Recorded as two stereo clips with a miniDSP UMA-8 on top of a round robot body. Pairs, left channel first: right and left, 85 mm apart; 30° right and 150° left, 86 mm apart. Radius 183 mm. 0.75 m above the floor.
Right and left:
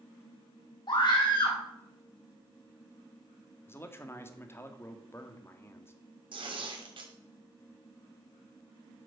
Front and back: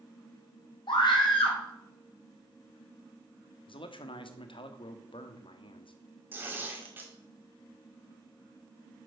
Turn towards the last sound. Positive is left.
turn(degrees=85)